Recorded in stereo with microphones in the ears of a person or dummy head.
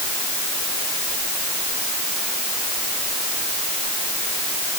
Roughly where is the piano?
No piano in this recording.